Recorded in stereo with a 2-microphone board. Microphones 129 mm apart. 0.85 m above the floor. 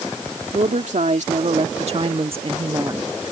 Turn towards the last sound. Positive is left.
turn(degrees=-25)  # may be behind; listen again after turning